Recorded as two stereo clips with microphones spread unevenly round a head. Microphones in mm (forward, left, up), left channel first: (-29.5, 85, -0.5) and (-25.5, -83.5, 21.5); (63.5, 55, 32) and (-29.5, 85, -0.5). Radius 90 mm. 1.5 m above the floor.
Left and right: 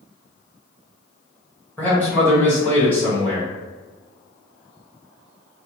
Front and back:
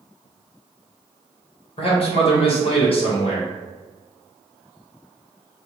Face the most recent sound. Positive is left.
turn(degrees=15)